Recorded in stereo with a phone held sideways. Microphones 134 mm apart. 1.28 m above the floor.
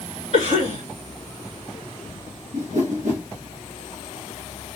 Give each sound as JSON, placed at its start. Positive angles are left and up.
{"t": 0.3, "sound": "a cough", "side_deg": -60, "distance_m": 3.0}
{"t": 2.5, "sound": "a whoosh", "side_deg": -65, "distance_m": 2.5}